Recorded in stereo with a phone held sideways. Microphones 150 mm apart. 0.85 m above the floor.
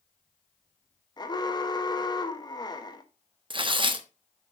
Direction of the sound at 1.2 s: 30° left (ahead or behind).